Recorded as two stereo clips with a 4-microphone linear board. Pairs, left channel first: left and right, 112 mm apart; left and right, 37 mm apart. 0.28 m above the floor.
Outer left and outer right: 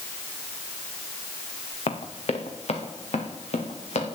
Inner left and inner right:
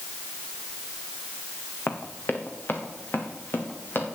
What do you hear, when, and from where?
1.9 s running footsteps: 65° left (ahead or behind), 1.8 m; by 4.0 s 75° left (ahead or behind), 4.5 m